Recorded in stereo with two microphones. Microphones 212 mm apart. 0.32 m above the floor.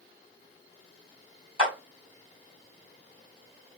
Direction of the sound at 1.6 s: 40° right (ahead or behind).